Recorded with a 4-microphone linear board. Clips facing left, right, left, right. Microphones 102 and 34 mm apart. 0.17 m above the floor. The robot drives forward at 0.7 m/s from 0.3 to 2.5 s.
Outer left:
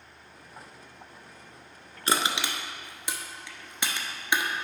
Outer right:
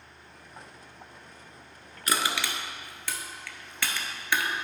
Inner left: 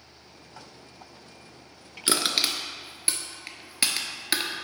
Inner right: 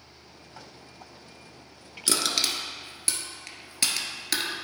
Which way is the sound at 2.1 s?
30° left (ahead or behind).